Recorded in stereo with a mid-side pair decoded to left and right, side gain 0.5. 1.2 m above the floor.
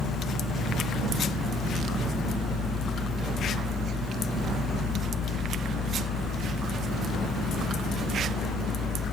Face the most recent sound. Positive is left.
turn(degrees=60)